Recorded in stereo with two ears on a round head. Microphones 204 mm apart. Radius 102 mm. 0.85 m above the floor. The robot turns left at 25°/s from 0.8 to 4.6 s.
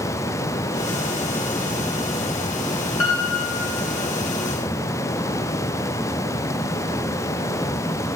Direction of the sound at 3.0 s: 65° left (ahead or behind).